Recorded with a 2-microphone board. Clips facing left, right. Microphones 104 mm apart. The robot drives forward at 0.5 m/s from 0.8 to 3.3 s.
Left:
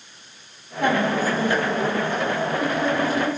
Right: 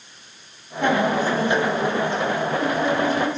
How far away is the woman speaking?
About 5.5 m.